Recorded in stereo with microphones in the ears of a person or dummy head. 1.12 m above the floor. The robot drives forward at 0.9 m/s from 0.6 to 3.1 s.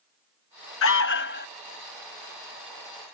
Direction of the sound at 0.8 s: 65° left (ahead or behind).